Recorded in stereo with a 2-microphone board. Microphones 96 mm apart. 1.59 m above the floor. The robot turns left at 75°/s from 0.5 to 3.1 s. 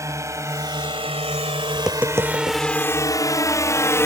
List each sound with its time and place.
0.0 s a drone: 35° right (ahead or behind); by 4.1 s 30° left (ahead or behind)
1.8 s tapping: 5° left (ahead or behind); by 2.6 s 60° right (ahead or behind)